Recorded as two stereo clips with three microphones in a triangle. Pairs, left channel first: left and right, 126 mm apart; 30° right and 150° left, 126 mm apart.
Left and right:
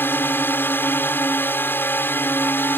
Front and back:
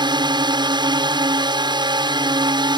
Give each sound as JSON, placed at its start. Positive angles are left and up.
{"t": 0.0, "sound": "a drone", "azimuth_deg": 150}